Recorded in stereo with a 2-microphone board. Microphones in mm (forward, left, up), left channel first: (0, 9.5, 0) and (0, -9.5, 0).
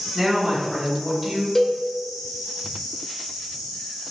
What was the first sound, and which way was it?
A woman speaking, 5° left (ahead or behind).